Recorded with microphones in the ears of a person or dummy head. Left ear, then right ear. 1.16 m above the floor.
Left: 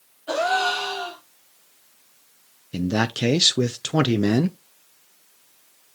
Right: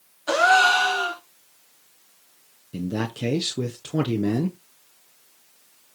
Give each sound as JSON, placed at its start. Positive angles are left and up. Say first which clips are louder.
{"t": 0.3, "sound": "a gasp", "louder": "right 5 dB", "side_deg": -60, "distance_m": 3.0}
{"t": 2.7, "sound": "a man speaking", "louder": "left 6 dB", "side_deg": 35, "distance_m": 0.6}